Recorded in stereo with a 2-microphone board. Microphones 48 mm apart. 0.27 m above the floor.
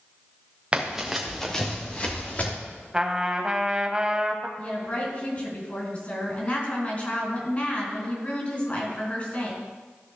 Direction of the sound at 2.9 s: 15° right (ahead or behind).